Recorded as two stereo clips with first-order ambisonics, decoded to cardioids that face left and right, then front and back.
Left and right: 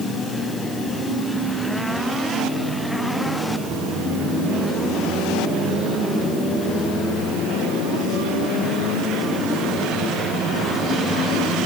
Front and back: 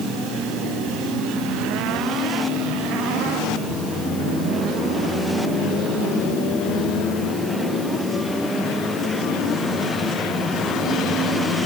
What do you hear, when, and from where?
Only background noise.